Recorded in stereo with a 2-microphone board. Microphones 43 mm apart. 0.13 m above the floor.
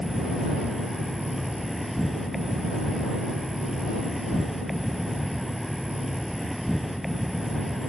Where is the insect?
Centre (ahead or behind).